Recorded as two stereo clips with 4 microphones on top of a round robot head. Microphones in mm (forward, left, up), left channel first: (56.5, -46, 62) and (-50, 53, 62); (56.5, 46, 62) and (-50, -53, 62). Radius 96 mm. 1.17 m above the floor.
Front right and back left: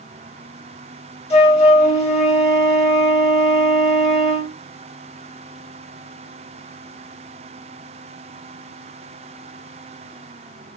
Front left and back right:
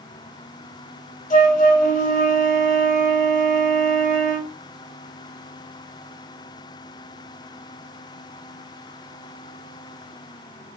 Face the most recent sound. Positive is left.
turn(degrees=5)